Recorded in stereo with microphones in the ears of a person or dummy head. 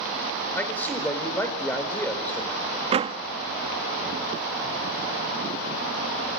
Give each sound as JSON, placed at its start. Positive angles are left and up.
{"t": 0.6, "sound": "a man speaking", "side_deg": 5, "distance_m": 4.5}
{"t": 2.9, "sound": "a door slam", "side_deg": -30, "distance_m": 1.1}